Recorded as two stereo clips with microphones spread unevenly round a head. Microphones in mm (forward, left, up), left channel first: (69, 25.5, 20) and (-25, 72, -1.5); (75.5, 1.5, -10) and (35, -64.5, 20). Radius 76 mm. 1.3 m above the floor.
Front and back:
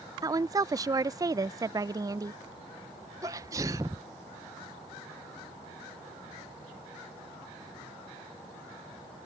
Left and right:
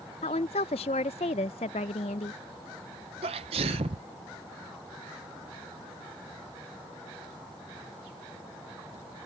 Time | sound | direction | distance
0.2 | a woman speaking | 90° left | ?
3.2 | a sneeze | 145° right | ?